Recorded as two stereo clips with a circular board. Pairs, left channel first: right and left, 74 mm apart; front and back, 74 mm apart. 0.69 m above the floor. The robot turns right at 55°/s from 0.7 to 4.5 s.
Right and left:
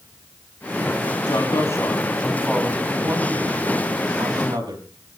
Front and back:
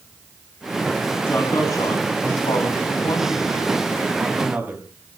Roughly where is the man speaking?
Ahead right.